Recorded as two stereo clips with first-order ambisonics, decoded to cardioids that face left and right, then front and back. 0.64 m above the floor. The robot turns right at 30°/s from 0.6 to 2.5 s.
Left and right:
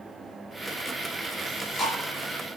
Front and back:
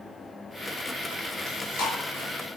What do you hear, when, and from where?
1.5 s chewing: 15° left, 3.5 m; by 1.9 s 30° left, 3.5 m